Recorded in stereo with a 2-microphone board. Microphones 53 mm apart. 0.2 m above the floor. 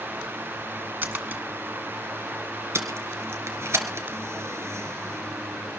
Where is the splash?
35° right (ahead or behind), 1.6 m.